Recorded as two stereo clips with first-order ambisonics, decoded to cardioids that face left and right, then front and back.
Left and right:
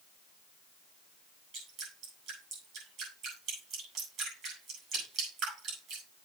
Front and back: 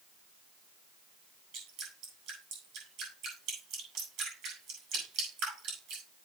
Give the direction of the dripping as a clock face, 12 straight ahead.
5 o'clock.